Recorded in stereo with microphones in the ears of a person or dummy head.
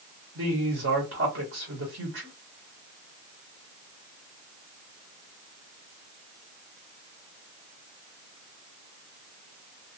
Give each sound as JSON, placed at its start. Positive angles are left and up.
{"t": 0.3, "sound": "a woman speaking", "side_deg": -70, "distance_m": 1.2}